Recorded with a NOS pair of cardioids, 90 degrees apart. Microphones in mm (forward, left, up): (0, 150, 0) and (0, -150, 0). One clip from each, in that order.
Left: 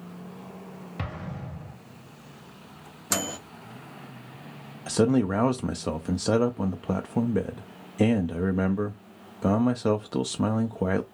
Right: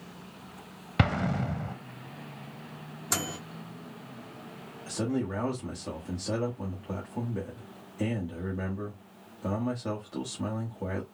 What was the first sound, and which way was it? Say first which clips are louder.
An explosion: right 10 dB; 55° right.